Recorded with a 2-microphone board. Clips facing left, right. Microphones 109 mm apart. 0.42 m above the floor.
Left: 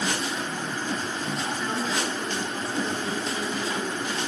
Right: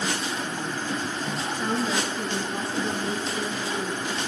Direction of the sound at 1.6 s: 35° right (ahead or behind).